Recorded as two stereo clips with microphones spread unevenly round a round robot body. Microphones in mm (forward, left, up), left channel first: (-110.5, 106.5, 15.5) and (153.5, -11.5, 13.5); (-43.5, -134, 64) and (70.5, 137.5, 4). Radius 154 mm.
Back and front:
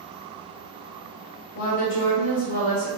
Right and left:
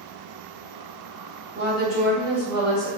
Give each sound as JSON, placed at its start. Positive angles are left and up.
{"t": 1.6, "sound": "a woman speaking", "azimuth_deg": 140, "distance_m": 1.6}